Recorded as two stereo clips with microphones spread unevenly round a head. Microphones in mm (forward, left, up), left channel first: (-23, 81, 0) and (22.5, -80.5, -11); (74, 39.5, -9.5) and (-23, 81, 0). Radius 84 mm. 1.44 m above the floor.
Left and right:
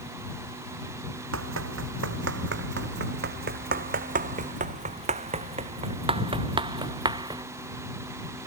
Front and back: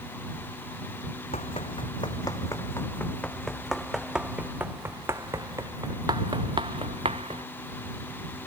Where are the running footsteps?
80° right; by 7.4 s 145° right.